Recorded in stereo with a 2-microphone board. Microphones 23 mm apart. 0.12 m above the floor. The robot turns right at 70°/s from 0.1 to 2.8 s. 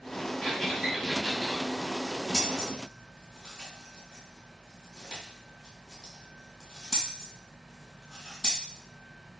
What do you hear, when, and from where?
0.4 s a squeak: 25° left (ahead or behind), 1.9 m; by 1.6 s 45° right (ahead or behind), 1.9 m
2.3 s scissors: 5° right (ahead or behind), 1.5 m; by 8.6 s 25° left (ahead or behind), 1.5 m